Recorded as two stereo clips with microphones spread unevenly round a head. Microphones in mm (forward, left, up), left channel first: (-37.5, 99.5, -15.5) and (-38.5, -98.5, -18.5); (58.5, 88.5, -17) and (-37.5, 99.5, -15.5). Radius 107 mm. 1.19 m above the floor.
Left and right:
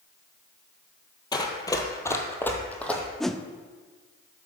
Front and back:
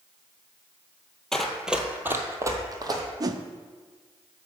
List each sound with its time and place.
1.3 s running footsteps: 70° left, 1.2 m; by 3.0 s 170° left, 1.7 m
3.2 s a whoosh: 175° left, 0.5 m